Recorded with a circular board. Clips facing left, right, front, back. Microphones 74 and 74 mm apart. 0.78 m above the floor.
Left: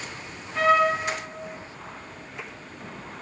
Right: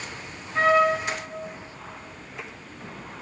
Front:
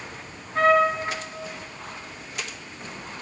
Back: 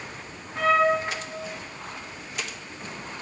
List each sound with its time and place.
0.6 s a trumpet: 40° right, 2.5 m